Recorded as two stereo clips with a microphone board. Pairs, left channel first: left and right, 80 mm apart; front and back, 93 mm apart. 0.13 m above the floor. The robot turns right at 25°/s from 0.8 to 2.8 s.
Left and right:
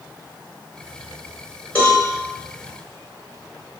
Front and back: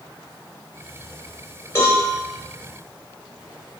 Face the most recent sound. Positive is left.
turn(degrees=55)